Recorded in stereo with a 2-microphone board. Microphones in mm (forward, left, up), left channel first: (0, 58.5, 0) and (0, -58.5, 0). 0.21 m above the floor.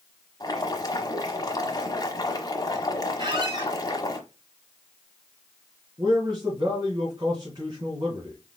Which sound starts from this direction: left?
Boiling, at 0.4 s.